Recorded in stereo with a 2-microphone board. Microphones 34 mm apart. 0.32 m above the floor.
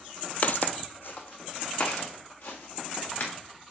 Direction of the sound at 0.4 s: 50° left (ahead or behind).